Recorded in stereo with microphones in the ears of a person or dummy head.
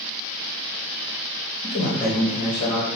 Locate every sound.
1.6 s a man speaking: 45° left (ahead or behind), 1.1 m